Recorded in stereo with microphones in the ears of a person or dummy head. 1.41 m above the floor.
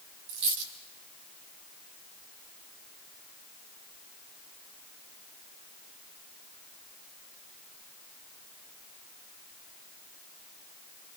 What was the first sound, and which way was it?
A dropped coin, 60° right (ahead or behind).